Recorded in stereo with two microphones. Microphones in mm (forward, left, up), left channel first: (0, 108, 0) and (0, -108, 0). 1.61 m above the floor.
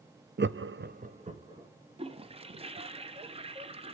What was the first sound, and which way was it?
Laughter, 50° right (ahead or behind).